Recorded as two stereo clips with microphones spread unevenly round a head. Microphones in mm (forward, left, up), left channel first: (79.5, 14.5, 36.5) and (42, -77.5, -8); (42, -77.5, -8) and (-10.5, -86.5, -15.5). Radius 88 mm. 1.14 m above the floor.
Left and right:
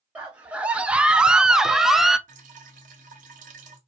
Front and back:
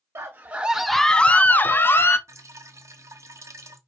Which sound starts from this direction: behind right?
Dripping, at 2.3 s.